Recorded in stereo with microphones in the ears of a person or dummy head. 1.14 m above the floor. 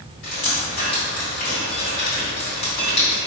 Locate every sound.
0.2 s dripping: 65° left (ahead or behind), 1.6 m